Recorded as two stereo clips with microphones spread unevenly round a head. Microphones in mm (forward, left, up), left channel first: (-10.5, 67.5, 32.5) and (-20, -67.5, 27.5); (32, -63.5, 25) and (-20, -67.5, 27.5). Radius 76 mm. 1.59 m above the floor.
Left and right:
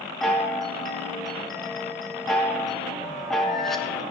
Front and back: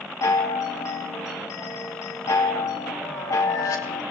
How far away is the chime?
About 1.4 m.